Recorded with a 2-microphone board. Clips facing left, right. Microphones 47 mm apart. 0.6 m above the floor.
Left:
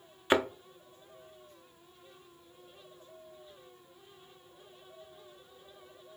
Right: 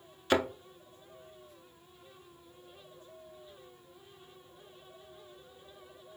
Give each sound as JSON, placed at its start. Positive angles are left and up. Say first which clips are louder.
{"t": 0.3, "sound": "a thud", "louder": "left 1 dB", "side_deg": 20, "distance_m": 0.6}